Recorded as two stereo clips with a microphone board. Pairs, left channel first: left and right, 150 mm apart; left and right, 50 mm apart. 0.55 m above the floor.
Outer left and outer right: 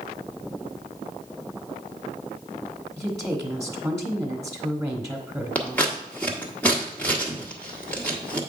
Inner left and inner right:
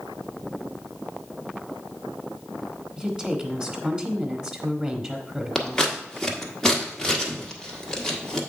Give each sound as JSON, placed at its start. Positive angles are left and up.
{"t": 3.0, "sound": "a woman speaking", "side_deg": -20, "distance_m": 1.2}
{"t": 5.5, "sound": "scissors", "side_deg": 10, "distance_m": 1.3}